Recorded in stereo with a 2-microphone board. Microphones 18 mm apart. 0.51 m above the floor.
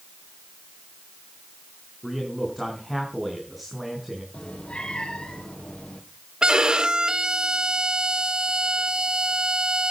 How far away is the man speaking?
About 5 m.